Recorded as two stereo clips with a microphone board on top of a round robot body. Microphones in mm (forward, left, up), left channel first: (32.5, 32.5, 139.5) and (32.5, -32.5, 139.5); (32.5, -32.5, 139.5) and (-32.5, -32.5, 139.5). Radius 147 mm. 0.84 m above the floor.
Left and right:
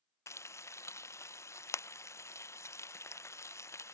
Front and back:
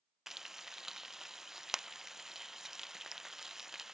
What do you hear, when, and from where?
0.3 s frying: 100° left